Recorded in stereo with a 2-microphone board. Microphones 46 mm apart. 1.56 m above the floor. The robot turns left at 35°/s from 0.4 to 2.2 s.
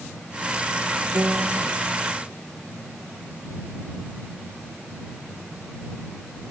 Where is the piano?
50° right (ahead or behind); by 1.6 s 65° right (ahead or behind).